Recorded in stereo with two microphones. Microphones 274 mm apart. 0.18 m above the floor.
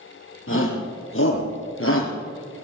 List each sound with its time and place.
0.5 s a shout: 45° left (ahead or behind), 5.5 m